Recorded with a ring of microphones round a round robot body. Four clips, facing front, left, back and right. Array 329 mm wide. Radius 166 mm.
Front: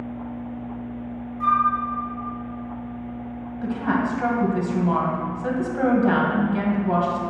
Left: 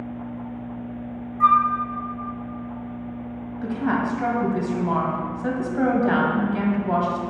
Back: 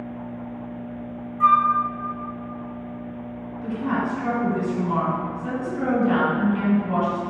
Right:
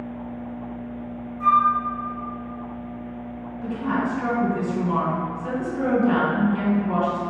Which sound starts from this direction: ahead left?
A woman speaking, at 3.6 s.